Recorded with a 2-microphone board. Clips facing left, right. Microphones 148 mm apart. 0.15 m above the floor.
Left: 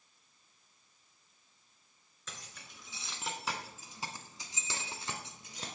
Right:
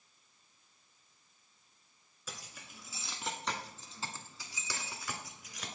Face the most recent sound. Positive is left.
turn(degrees=30)  # may be behind; listen again after turning